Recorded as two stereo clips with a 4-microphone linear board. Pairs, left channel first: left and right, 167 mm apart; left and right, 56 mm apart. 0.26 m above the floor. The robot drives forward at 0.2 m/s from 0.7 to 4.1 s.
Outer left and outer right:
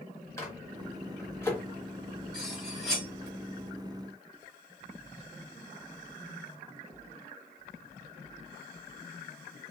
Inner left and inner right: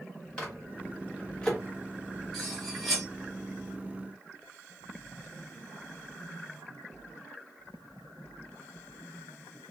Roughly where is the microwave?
Centre.